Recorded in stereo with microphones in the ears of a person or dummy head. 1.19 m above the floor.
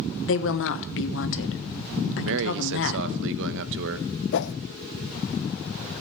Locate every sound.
0.2 s a woman speaking: 60° left (ahead or behind), 1.1 m
2.2 s a man speaking: 65° right (ahead or behind), 1.0 m
4.3 s a whoosh: 50° left (ahead or behind), 0.5 m